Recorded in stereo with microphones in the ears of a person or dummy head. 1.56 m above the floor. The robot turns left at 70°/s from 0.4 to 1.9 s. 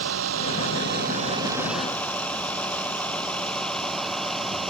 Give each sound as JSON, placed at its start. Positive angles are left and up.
{"t": 0.0, "sound": "a vehicle", "side_deg": -90}